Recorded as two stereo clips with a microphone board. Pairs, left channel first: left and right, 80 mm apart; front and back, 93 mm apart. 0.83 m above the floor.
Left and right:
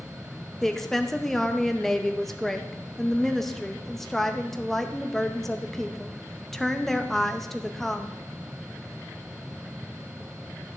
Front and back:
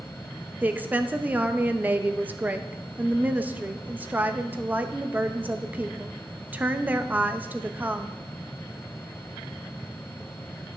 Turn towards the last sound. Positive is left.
turn(degrees=170)